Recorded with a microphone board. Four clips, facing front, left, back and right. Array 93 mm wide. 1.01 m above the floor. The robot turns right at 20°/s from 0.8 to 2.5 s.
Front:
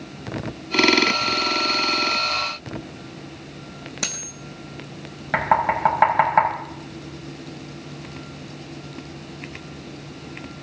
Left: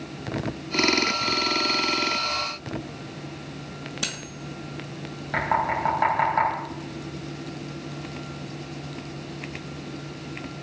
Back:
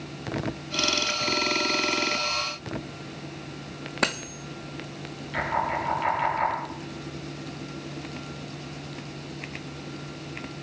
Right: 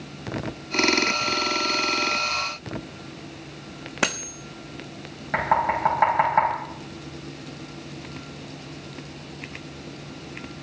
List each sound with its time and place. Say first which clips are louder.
4.0 s cutlery clinking: right 13 dB, back 9 dB; 125° right, 1.0 m
5.3 s knocking: right 2 dB, front 7 dB; 10° right, 6 m